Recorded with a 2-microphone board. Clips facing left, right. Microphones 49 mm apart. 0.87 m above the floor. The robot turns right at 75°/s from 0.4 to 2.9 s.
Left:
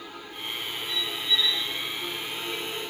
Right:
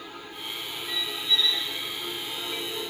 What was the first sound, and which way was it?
A squeak, 25° right.